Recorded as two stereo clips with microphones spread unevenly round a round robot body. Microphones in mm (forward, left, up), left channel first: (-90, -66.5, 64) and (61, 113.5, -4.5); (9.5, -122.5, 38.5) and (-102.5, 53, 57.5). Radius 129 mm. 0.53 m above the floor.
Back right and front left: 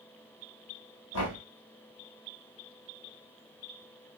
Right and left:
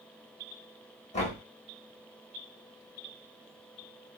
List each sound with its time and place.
1.1 s knocking: 100° right, 1.4 m